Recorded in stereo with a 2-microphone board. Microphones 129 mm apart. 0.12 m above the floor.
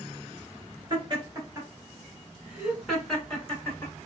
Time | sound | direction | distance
0.9 | laughter | 35° right (ahead or behind) | 1.6 m